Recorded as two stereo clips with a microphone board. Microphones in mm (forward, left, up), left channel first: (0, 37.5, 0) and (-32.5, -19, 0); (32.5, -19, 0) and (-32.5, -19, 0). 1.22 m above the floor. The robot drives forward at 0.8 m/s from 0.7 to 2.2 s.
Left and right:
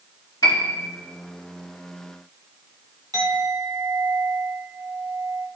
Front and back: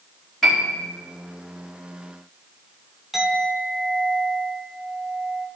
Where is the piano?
85° left, 2.5 m.